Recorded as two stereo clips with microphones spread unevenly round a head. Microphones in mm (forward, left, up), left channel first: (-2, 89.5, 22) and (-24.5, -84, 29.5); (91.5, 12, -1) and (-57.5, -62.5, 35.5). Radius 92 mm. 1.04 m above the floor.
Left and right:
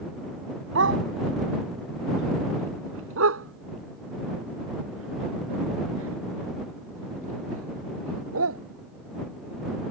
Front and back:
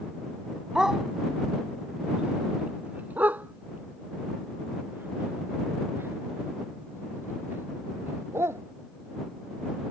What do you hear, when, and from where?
0.8 s a dog barking: 70° right; by 8.6 s 80° right